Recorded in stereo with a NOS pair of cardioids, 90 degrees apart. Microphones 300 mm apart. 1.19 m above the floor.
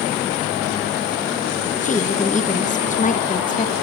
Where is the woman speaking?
25° left, 1.1 m.